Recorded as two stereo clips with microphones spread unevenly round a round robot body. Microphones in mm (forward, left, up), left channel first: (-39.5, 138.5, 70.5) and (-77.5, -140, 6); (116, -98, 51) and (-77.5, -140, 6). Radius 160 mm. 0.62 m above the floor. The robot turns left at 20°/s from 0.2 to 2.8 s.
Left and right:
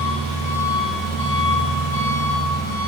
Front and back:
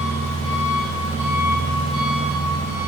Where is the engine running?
150° left, 5.5 m; by 2.9 s 100° left, 5.5 m.